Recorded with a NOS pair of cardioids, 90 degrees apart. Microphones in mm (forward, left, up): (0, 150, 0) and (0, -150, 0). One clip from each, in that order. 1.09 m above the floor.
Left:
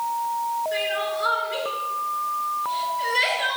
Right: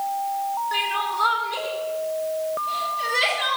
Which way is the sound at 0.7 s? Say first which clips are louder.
Right 1 dB; 60° right.